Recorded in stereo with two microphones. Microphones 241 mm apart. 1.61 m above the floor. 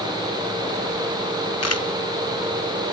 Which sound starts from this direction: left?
A camera shutter, at 1.6 s.